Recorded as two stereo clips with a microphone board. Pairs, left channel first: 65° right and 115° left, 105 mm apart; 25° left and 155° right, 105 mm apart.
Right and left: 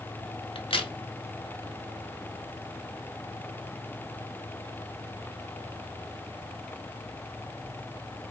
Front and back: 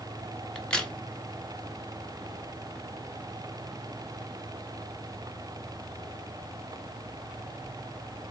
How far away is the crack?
About 0.7 m.